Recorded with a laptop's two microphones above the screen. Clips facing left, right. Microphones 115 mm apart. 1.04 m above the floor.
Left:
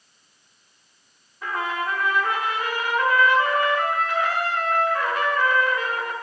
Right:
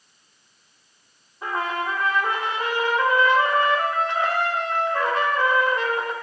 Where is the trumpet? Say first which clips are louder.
Right 1 dB; 30° right (ahead or behind), 0.9 m.